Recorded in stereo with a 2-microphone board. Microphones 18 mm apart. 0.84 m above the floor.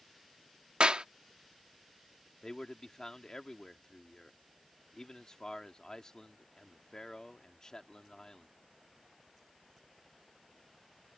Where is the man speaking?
40° left (ahead or behind).